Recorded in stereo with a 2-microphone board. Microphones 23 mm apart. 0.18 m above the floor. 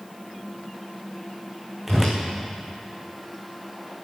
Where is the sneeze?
I don't hear a sneeze.